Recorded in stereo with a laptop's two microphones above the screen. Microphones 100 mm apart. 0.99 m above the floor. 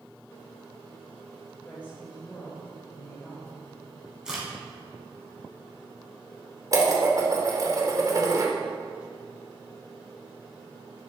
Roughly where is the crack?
Centre.